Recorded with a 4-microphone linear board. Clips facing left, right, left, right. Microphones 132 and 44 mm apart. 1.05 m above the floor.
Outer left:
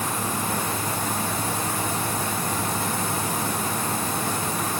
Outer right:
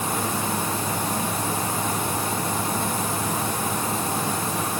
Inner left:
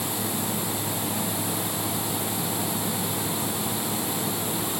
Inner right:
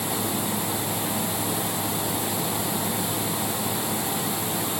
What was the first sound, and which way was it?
Only background noise.